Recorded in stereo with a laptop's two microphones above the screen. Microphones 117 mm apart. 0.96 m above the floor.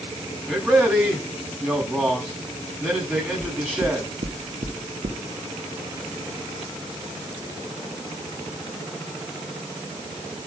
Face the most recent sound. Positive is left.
turn(degrees=-70)  # may be behind; listen again after turning